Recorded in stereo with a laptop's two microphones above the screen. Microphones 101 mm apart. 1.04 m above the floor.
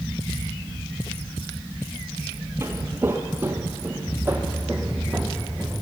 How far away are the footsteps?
About 1.3 m.